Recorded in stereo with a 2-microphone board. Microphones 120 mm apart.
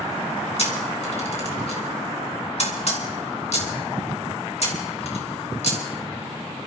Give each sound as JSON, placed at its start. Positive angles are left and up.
{"t": 0.6, "sound": "a camera shutter", "side_deg": 60, "distance_m": 2.5}